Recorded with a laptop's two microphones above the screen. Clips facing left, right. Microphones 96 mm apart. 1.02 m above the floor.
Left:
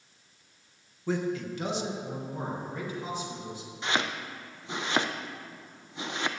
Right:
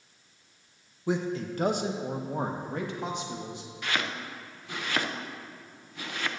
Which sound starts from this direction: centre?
A man speaking, at 1.1 s.